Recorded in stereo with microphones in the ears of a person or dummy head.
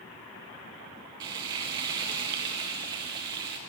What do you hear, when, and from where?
1.2 s frying: 25° right (ahead or behind), 0.8 m